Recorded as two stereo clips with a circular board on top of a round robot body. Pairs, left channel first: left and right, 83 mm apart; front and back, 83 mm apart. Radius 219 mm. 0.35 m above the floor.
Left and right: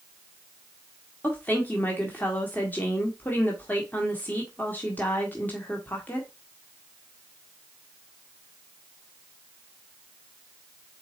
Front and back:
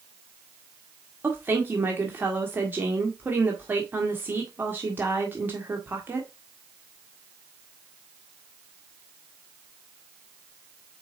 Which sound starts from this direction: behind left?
A woman speaking, at 1.2 s.